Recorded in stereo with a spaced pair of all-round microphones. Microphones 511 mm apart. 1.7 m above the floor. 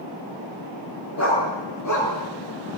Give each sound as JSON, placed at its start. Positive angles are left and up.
{"t": 1.2, "sound": "a dog barking", "side_deg": 30, "distance_m": 8.0}